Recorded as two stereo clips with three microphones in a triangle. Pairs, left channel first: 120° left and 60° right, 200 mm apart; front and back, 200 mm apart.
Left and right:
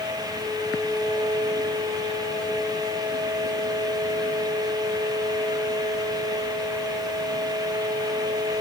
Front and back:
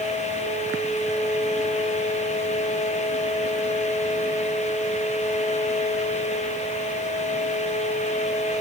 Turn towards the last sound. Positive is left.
No sound to turn to.